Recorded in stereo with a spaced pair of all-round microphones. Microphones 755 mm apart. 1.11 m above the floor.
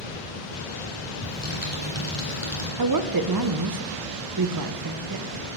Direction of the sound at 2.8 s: 30° right (ahead or behind).